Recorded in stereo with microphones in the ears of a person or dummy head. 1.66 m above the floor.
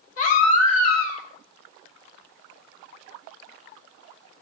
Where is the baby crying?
55° left (ahead or behind), 2.5 m.